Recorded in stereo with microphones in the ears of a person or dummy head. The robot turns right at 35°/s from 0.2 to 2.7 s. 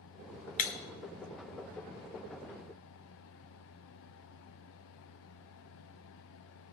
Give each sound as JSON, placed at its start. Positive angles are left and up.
{"t": 0.6, "sound": "breaking glass", "side_deg": 45, "distance_m": 0.9}